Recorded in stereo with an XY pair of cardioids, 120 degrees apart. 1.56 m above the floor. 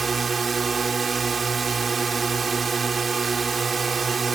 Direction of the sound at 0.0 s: 30° right.